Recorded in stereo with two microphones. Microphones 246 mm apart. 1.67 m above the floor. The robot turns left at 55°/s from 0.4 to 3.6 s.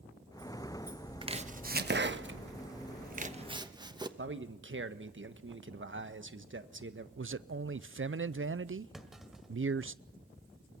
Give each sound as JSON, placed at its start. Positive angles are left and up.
{"t": 1.2, "sound": "chopping", "side_deg": -20, "distance_m": 1.1}
{"t": 4.2, "sound": "a man speaking", "side_deg": -50, "distance_m": 1.3}
{"t": 7.2, "sound": "a man speaking", "side_deg": -55, "distance_m": 0.6}
{"t": 8.9, "sound": "a clunk", "side_deg": 0, "distance_m": 1.9}